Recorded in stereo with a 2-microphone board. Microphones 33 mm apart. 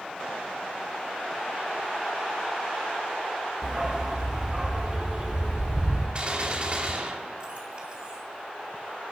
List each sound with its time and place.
3.6 s a dog barking: 20° right (ahead or behind), 1.4 m; by 6.0 s 30° right (ahead or behind), 2.5 m
6.2 s a gunshot: 35° right (ahead or behind), 2.5 m